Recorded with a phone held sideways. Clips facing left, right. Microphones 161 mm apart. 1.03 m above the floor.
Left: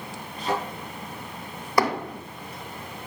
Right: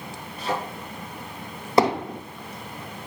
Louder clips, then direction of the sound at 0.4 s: Left 1 dB; 30° left (ahead or behind).